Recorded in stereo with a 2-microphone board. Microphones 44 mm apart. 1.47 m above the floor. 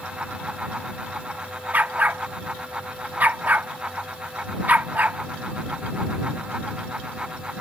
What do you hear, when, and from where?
1.7 s a dog barking: 40° right (ahead or behind)